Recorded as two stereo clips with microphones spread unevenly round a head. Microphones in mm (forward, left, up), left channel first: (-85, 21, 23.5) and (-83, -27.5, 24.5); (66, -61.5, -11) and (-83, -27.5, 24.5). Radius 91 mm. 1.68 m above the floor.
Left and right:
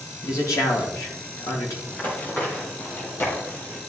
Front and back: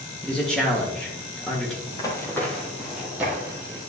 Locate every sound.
0.2 s a man speaking: 75° left, 2 m
1.9 s running footsteps: 60° left, 1.9 m; by 3.8 s 120° left, 2.5 m